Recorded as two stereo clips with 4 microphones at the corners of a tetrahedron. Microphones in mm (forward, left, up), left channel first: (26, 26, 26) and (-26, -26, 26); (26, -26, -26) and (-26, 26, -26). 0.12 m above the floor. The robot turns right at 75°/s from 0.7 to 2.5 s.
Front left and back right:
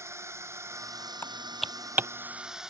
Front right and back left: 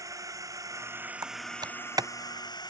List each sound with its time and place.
0.0 s a drone: 175° left; by 2.7 s 55° right
1.2 s typing on a keyboard: 105° left; by 2.1 s 170° left